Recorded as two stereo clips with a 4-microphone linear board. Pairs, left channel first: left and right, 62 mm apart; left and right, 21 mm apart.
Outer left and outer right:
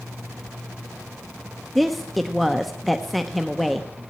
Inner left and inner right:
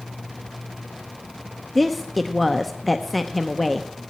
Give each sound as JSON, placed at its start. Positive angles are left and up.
{"t": 1.8, "sound": "a woman speaking", "side_deg": 0, "distance_m": 0.6}